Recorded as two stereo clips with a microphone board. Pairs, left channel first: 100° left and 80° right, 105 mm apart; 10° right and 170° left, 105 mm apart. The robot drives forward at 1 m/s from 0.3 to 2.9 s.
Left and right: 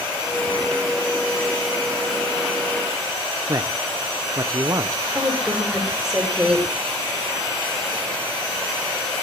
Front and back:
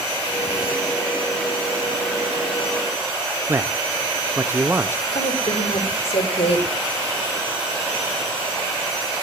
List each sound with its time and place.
3.5 s a man speaking: 125° right, 0.8 m
5.2 s a woman speaking: 5° left, 5.5 m